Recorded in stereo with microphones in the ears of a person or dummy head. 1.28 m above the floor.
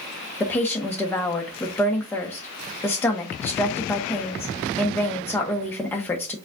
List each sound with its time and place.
0.4 s a woman speaking: 10° left (ahead or behind), 1.1 m